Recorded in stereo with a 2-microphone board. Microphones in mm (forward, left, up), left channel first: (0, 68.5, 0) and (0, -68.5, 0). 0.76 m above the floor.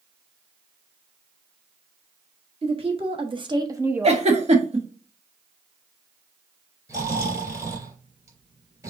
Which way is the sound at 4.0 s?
50° right (ahead or behind).